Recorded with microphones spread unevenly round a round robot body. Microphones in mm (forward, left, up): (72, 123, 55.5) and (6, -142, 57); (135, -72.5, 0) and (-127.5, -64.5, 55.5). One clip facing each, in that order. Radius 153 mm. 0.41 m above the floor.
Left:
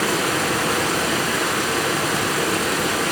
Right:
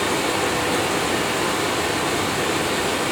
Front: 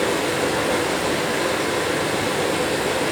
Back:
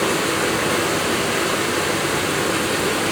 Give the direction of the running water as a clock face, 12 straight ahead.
9 o'clock.